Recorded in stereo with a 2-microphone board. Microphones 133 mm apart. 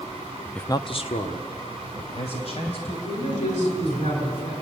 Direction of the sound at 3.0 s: 70° left (ahead or behind).